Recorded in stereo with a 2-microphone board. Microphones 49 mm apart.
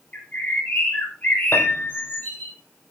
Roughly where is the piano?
Left.